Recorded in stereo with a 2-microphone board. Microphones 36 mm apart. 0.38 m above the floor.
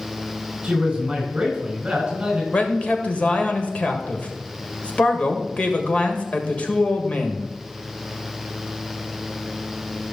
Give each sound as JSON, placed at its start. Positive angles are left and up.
{"t": 0.6, "sound": "a man speaking", "side_deg": -25, "distance_m": 4.0}
{"t": 2.5, "sound": "a man speaking", "side_deg": 40, "distance_m": 1.7}